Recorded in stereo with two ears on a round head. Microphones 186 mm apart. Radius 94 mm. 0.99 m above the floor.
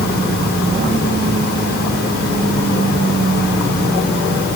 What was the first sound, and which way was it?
Only background noise.